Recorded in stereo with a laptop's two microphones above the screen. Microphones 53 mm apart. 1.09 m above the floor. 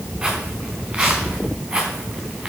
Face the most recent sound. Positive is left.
turn(degrees=-15)  # may be behind; listen again after turning